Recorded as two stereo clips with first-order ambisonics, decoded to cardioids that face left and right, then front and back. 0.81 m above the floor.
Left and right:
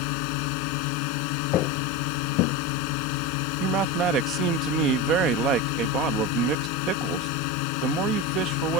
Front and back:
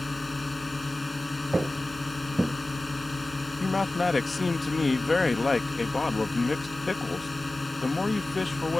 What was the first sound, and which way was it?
A drone, 80° left.